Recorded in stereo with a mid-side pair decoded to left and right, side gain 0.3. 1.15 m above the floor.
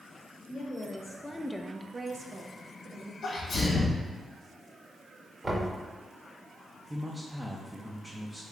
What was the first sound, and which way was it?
A woman speaking, 55° left.